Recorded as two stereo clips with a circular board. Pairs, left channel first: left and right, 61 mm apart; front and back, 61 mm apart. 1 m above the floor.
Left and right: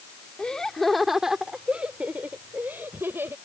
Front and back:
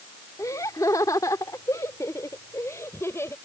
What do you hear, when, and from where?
0.4 s laughter: 15° left; by 3.4 s 45° right